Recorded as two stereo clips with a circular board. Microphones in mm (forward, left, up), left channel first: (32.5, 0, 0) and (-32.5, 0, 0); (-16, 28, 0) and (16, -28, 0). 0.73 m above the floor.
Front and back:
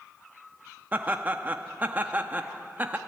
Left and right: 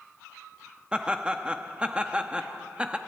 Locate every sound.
0.9 s laughter: 130° right, 0.8 m